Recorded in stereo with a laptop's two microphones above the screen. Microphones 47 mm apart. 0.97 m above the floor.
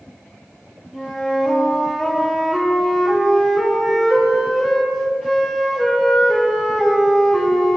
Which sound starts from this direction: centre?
A flute, at 0.9 s.